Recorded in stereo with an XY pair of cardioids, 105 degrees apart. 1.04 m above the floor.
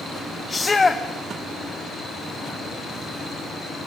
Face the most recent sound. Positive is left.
turn(degrees=25)